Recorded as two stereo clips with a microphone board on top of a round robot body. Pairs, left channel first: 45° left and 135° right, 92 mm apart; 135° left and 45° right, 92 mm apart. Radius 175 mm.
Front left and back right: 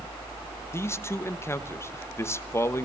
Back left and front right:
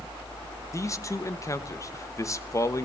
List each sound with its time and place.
0.7 s a man speaking: 95° left, 1.5 m